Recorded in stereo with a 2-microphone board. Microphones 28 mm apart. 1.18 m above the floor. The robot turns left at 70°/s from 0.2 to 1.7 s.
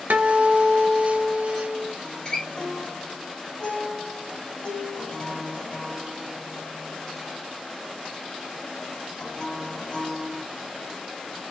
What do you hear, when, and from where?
0.1 s a guitar: 115° right, 0.6 m; by 1.9 s 140° left, 0.6 m
2.0 s a guitar: 25° left (ahead or behind), 2.5 m